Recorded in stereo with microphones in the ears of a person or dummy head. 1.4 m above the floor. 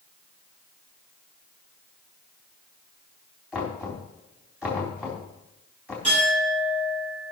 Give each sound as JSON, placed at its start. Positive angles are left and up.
{"t": 3.5, "sound": "knocking", "side_deg": -5, "distance_m": 3.5}
{"t": 6.0, "sound": "a clink", "side_deg": -35, "distance_m": 7.5}